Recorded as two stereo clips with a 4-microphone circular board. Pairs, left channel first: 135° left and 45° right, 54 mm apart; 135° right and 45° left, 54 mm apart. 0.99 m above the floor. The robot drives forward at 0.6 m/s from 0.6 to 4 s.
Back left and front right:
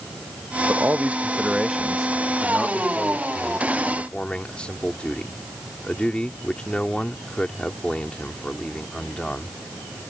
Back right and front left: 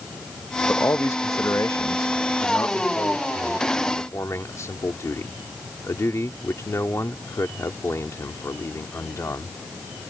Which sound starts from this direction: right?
A man speaking, at 0.7 s.